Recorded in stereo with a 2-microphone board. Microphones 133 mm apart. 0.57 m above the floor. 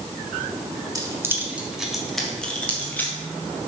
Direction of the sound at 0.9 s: 25° right (ahead or behind).